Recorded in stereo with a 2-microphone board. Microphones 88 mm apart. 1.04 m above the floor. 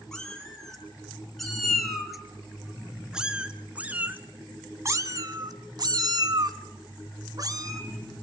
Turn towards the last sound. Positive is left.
turn(degrees=-40)  # may be behind; listen again after turning